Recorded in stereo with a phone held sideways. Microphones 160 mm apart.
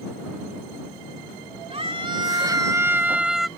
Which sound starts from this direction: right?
A scream, at 1.7 s.